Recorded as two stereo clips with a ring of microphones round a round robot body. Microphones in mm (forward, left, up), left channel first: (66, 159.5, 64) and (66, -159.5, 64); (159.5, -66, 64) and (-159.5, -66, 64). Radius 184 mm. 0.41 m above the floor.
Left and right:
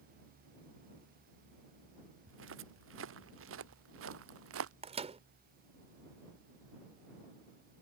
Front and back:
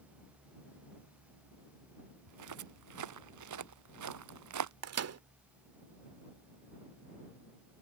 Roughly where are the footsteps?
Behind right.